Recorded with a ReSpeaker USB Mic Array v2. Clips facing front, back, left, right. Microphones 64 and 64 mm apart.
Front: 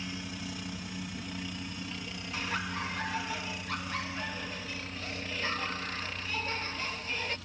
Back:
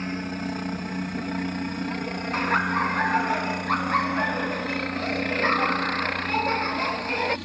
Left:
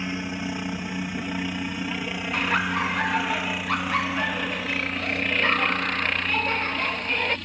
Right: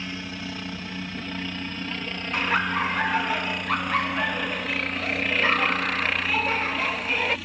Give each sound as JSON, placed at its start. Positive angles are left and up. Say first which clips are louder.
{"t": 0.0, "sound": "a helicopter", "louder": "back 10 dB, left 4 dB", "azimuth_deg": 155}
{"t": 2.3, "sound": "laughter", "louder": "back 12 dB, right 1 dB", "azimuth_deg": -175}